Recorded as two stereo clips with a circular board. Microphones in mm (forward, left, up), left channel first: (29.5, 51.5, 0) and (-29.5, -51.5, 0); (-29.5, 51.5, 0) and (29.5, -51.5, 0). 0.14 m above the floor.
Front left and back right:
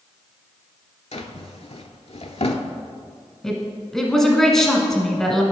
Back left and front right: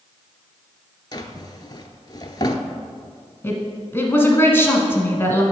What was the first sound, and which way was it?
A drawer, 70° left.